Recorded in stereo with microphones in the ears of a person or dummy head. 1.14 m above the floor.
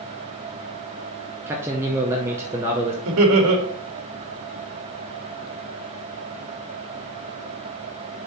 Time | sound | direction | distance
1.5 | a man speaking | 10° right (ahead or behind) | 0.7 m
3.0 | laughter | 75° right (ahead or behind) | 1.9 m